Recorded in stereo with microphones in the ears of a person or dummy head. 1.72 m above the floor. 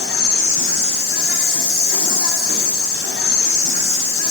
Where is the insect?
65° left (ahead or behind), 1.0 m.